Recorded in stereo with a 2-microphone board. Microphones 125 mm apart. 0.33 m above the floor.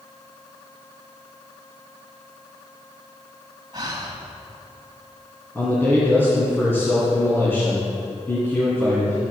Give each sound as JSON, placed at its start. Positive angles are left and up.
{"t": 3.7, "sound": "breathing", "side_deg": -40, "distance_m": 1.5}
{"t": 5.5, "sound": "a man speaking", "side_deg": 20, "distance_m": 2.5}